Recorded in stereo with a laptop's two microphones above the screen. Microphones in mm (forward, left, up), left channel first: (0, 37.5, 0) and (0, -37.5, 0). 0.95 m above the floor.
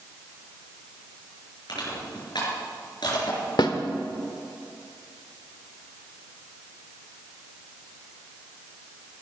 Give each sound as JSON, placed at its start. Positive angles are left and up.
{"t": 1.7, "sound": "crushing", "side_deg": 70, "distance_m": 4.0}
{"t": 3.6, "sound": "a snare drum", "side_deg": 70, "distance_m": 1.1}